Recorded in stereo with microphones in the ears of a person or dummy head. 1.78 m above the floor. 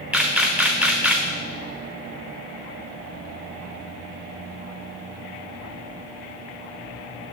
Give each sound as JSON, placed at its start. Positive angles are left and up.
{"t": 0.1, "sound": "a camera shutter", "side_deg": 0, "distance_m": 0.5}